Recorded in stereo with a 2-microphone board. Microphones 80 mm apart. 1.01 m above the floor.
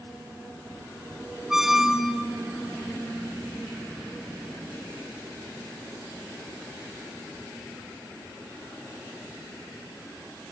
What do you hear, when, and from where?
1.5 s a squeak: 5° right (ahead or behind), 0.6 m